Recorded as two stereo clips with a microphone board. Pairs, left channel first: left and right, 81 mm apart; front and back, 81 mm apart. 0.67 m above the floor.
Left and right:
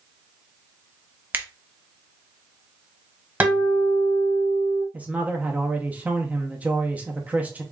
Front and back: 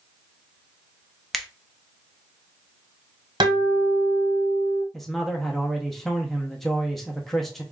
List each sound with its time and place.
1.3 s a finger snap: 85° right, 0.6 m
3.4 s a guitar: 160° right, 1.4 m
4.9 s a man speaking: 80° right, 0.7 m